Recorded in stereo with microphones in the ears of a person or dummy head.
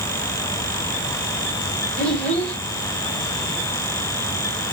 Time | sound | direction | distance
2.0 | a child speaking | 5° left (ahead or behind) | 3 m